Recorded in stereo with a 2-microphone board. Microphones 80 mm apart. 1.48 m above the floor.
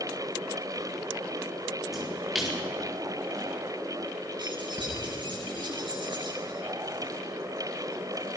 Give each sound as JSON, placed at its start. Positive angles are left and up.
{"t": 1.9, "sound": "a splash", "side_deg": 0, "distance_m": 4.5}
{"t": 4.4, "sound": "keys jangling", "side_deg": -80, "distance_m": 9.5}